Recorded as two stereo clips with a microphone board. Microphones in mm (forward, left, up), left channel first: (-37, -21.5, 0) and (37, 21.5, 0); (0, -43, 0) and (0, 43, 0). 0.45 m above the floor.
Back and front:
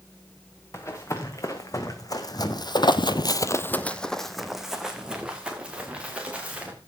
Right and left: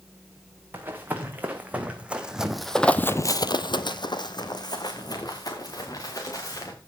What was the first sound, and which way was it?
Running footsteps, 155° left.